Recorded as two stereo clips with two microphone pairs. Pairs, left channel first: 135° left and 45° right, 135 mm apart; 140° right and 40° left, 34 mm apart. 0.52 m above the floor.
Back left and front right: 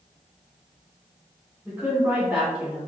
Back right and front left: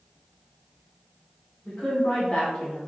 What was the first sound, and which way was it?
A woman speaking, 120° right.